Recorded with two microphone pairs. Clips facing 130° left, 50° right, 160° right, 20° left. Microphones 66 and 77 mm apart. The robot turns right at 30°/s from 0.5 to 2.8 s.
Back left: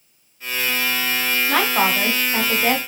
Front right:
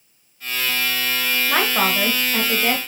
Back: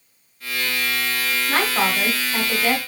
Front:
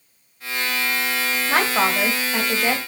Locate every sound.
1.5 s a woman speaking: 20° left, 1.0 m; by 2.8 s 60° left, 1.0 m